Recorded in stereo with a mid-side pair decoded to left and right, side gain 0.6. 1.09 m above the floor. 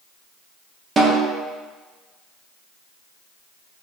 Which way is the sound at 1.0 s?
25° right.